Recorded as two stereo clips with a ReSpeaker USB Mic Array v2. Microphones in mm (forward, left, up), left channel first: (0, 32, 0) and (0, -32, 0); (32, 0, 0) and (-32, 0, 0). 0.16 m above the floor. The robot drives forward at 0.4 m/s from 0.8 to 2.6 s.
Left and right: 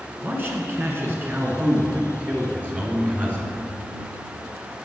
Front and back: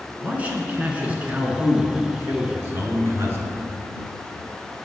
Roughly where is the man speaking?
Behind right.